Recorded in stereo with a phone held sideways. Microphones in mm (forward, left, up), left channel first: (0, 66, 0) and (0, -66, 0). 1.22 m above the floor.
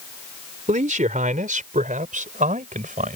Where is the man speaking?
75° right (ahead or behind); by 3.2 s 80° right.